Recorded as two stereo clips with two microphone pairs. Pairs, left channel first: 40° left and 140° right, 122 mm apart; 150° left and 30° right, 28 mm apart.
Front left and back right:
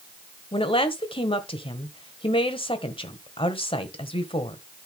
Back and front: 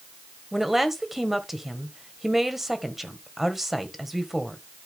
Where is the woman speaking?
50° left, 1.4 m.